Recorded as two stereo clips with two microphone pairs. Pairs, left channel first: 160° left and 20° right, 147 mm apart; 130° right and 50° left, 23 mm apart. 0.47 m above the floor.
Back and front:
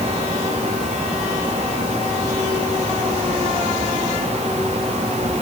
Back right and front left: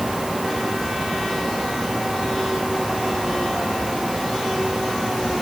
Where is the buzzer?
I don't hear a buzzer.